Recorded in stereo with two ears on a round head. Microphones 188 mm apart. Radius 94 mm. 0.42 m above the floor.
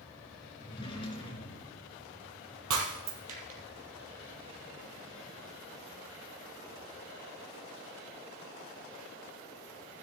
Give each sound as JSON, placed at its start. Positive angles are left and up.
{"t": 0.6, "sound": "a drawer", "side_deg": 25, "distance_m": 3.5}
{"t": 2.7, "sound": "breaking glass", "side_deg": -70, "distance_m": 3.0}